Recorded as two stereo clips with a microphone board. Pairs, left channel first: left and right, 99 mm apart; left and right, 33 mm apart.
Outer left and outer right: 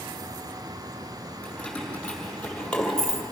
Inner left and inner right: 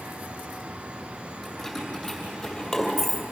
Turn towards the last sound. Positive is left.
turn(degrees=5)  # may be behind; listen again after turning